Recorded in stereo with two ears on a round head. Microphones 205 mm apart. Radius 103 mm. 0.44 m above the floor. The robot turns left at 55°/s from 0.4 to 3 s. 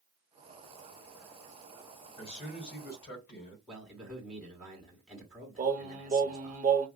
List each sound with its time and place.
2.2 s a man speaking: 155° left, 2 m; by 3.6 s 105° left, 2 m
3.7 s a man speaking: 5° left (ahead or behind), 1.3 m
5.6 s singing: 35° right (ahead or behind), 0.9 m